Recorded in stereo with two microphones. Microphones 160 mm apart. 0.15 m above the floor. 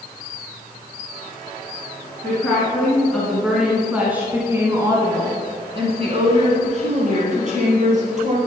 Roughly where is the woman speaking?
Centre.